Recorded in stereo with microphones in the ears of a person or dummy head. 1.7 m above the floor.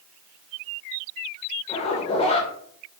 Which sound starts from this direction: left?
A zipper, at 1.7 s.